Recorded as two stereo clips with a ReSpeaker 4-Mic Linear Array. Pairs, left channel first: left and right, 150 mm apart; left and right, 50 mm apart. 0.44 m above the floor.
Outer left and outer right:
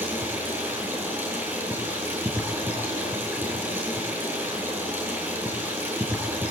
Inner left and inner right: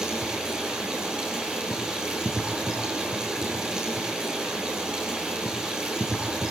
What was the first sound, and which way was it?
Running water, 15° right (ahead or behind).